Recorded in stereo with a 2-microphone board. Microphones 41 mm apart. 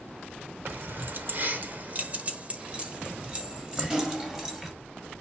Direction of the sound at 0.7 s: 55° right (ahead or behind).